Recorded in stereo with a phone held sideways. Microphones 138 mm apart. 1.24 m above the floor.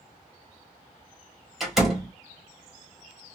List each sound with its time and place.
1.6 s a door slam: 5° right (ahead or behind), 1.8 m